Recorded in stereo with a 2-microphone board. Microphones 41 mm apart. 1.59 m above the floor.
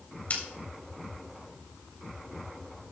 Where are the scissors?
40° left (ahead or behind), 3.5 m.